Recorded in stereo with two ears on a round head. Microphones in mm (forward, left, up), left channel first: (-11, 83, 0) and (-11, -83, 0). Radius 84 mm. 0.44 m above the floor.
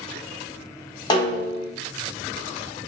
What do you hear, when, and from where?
1.1 s a snare drum: 25° left (ahead or behind), 0.9 m